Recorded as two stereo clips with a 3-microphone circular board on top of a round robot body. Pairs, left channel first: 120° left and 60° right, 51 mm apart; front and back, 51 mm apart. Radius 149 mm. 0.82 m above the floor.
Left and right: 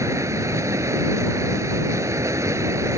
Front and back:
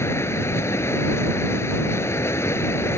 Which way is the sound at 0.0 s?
35° right.